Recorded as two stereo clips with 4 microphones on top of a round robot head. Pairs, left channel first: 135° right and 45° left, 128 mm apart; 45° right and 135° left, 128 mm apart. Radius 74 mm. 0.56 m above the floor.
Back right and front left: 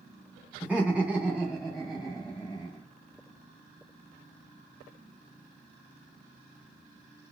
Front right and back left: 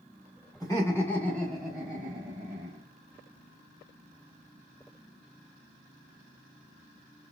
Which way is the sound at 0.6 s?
25° right.